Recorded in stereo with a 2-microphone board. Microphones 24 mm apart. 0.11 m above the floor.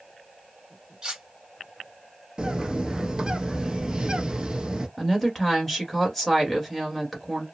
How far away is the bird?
About 0.8 m.